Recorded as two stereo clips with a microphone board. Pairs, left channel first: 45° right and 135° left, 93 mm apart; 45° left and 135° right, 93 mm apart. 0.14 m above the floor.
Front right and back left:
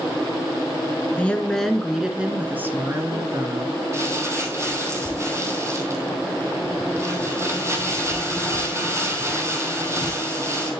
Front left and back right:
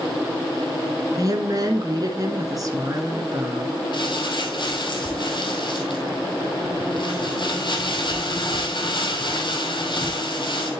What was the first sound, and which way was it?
A woman speaking, 115° right.